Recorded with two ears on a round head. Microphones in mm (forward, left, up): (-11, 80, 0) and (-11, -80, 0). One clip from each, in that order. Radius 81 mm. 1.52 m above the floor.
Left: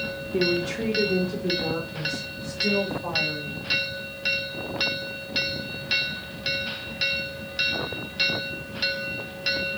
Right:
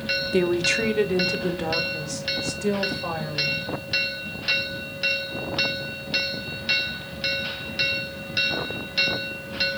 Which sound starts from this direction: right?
A woman speaking, at 0.3 s.